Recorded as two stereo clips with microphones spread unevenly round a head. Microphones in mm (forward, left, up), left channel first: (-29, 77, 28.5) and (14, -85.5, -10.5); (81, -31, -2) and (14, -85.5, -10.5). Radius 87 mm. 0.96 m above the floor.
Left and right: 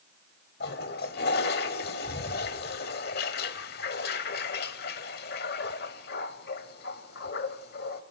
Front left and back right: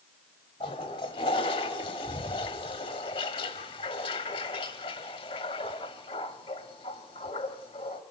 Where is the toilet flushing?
80° left, 1.8 m.